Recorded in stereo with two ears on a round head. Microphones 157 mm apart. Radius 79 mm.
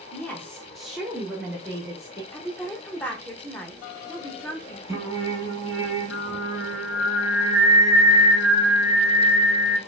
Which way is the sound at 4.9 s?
20° right (ahead or behind).